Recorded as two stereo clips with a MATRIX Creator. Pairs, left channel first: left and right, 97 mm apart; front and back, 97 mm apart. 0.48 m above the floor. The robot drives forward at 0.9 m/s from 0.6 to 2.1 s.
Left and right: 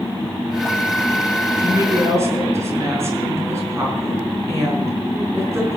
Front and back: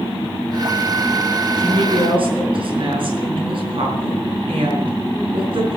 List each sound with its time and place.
1.6 s a woman speaking: 150° right, 5.5 m